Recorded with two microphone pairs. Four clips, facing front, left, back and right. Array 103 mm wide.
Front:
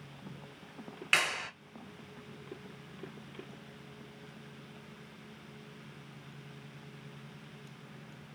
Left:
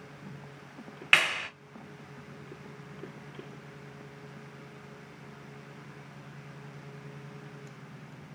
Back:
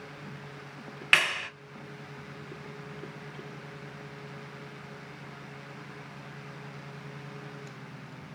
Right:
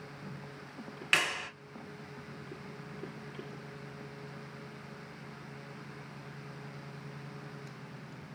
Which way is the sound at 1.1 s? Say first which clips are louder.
Left 4 dB, back 4 dB; 135° left.